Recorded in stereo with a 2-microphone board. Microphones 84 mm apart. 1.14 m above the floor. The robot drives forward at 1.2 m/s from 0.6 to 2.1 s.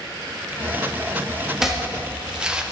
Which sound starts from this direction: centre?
Chopping, at 1.6 s.